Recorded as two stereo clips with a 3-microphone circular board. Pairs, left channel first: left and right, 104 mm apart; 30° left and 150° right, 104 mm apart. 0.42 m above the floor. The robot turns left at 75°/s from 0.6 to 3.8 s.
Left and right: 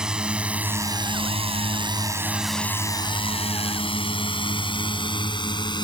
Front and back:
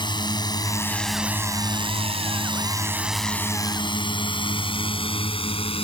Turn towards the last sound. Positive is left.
turn(degrees=50)